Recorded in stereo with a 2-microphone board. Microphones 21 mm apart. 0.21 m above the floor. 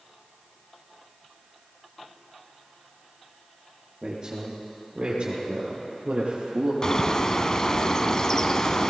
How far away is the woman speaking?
About 5.5 m.